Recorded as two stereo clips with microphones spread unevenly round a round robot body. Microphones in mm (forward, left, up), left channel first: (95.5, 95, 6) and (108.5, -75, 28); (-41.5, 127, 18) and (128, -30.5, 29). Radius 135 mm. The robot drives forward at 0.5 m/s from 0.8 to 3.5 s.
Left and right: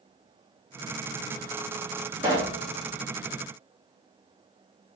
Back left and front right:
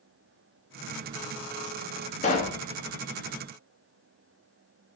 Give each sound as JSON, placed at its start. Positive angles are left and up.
{"t": 2.2, "sound": "a pop", "azimuth_deg": -160, "distance_m": 2.0}